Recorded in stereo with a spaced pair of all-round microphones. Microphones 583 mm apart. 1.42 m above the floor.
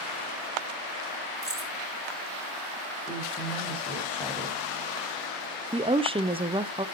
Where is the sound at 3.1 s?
10° left (ahead or behind), 5.5 m.